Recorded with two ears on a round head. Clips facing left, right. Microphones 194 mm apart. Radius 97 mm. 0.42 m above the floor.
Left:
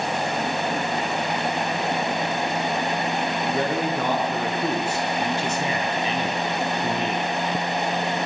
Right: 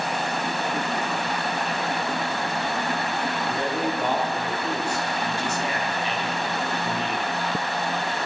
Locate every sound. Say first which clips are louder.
3.5 s a man speaking: left 3 dB; 65° left (ahead or behind), 7 m